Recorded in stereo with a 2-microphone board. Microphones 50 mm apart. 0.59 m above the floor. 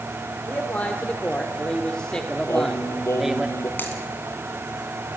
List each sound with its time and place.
0.5 s a man speaking: 35° left (ahead or behind), 2.0 m; by 3.5 s 10° right (ahead or behind), 1.1 m
2.5 s singing: 80° left, 3.5 m
3.8 s a dropped coin: 45° left (ahead or behind), 3 m